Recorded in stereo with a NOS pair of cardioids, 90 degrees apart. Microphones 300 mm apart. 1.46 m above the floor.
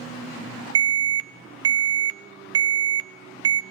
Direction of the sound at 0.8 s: 60° right.